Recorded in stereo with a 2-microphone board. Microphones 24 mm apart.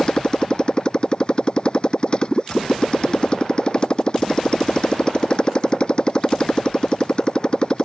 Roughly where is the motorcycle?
Left.